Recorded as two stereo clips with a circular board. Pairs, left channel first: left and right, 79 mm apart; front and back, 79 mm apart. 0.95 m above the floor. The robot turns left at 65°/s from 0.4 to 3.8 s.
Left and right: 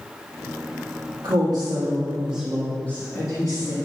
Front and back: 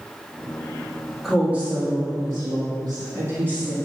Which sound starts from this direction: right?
A woman speaking, at 1.2 s.